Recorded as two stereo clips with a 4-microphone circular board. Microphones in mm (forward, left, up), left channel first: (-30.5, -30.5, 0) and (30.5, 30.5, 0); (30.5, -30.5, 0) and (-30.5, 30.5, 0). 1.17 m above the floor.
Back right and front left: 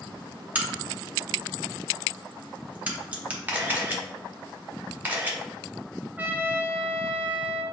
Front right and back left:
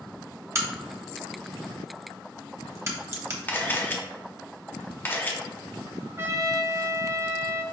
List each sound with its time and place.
0.6 s a crack: 105° left, 0.8 m
3.5 s a camera shutter: 5° right, 0.7 m
6.2 s a trumpet: 100° left, 0.6 m